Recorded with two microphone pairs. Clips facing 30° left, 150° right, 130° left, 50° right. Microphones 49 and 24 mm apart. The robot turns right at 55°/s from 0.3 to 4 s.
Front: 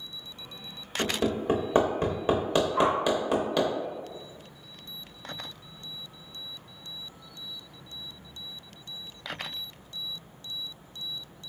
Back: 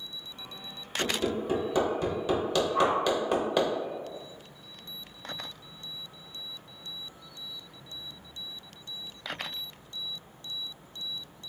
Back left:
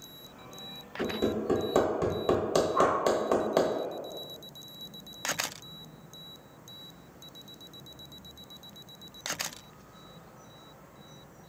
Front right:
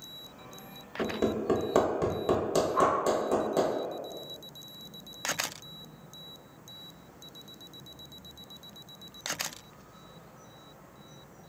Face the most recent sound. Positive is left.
turn(degrees=15)